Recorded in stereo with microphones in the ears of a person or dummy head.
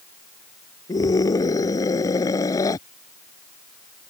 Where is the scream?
15° left (ahead or behind).